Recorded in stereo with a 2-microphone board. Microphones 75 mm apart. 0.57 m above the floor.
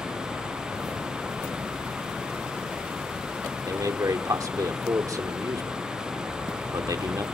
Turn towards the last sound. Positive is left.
turn(degrees=-50)  # may be behind; listen again after turning